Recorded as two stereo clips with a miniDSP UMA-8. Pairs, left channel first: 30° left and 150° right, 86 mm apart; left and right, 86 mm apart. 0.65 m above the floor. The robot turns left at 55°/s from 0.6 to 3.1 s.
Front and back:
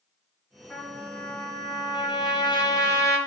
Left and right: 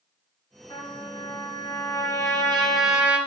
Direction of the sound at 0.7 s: 115° left.